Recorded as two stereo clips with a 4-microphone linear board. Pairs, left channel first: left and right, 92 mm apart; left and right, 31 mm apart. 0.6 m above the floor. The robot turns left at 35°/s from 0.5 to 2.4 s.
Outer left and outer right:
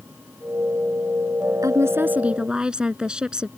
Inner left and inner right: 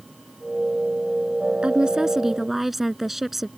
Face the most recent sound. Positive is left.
turn(degrees=-10)  # may be behind; listen again after turning